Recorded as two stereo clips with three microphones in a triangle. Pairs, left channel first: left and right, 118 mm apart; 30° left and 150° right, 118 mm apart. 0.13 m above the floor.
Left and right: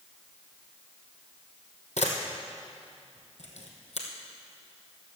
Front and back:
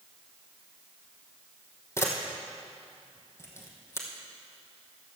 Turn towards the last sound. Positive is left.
turn(degrees=95)